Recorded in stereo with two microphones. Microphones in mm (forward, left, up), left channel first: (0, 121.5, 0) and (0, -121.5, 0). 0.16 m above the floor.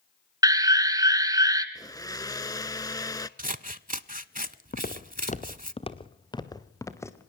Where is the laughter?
No laughter in this recording.